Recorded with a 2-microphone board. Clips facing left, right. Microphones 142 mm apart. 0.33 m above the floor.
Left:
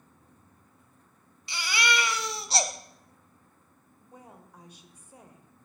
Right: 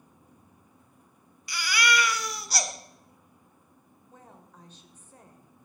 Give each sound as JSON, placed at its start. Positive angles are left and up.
{"t": 1.5, "sound": "a baby crying", "side_deg": 25, "distance_m": 1.1}
{"t": 4.0, "sound": "a woman speaking", "side_deg": 10, "distance_m": 1.4}